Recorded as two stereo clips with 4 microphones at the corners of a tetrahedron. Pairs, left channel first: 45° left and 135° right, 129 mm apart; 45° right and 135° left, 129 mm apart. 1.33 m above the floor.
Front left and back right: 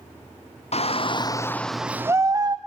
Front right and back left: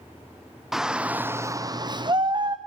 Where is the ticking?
I don't hear ticking.